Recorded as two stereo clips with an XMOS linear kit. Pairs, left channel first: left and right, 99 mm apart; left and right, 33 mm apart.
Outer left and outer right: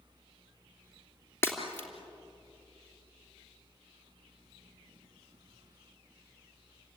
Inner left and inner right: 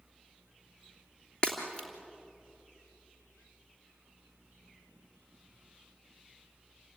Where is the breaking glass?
25° left (ahead or behind), 3 m.